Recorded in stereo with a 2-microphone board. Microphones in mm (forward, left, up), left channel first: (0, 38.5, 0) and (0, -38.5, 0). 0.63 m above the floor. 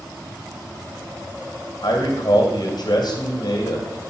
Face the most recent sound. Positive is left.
turn(degrees=65)  # may be behind; listen again after turning